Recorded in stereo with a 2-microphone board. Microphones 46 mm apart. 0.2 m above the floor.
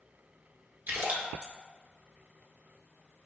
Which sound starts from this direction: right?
A splash, at 0.9 s.